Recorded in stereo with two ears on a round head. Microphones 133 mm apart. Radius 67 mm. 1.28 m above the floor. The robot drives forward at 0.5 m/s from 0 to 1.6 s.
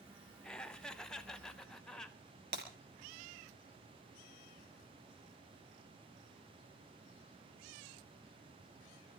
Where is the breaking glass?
70° right (ahead or behind), 4 m.